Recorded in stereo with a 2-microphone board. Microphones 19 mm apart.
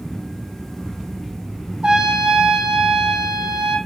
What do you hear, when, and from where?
1.8 s a trumpet: 50° right (ahead or behind), 2 m